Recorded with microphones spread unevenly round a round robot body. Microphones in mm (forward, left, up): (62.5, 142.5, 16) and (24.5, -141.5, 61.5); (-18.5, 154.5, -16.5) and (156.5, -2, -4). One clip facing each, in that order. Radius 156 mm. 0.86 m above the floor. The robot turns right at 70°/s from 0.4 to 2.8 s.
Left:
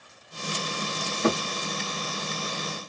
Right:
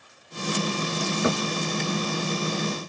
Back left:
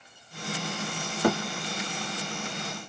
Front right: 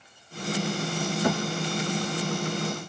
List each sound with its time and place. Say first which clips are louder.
1.2 s a thud: left 2 dB, back left 3 dB; 175° right, 1.6 m; by 1.4 s 165° right, 1.6 m